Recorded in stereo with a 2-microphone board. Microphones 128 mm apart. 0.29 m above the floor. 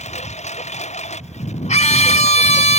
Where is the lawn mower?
60° left (ahead or behind).